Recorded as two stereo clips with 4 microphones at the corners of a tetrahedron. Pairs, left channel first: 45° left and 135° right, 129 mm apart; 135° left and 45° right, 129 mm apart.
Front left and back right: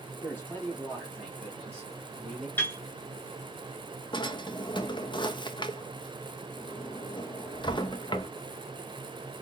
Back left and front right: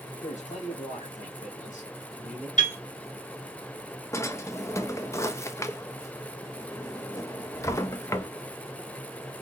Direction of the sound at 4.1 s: 75° left.